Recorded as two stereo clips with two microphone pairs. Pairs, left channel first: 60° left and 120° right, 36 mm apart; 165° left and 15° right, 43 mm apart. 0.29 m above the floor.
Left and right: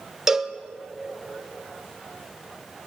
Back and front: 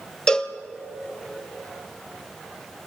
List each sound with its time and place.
0.3 s a cowbell: 170° right, 0.8 m